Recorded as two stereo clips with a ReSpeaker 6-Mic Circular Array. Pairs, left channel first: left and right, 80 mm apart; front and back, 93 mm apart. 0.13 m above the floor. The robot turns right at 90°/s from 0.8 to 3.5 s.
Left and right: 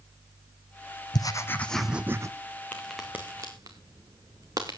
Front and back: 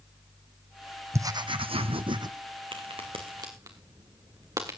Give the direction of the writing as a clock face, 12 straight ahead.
8 o'clock.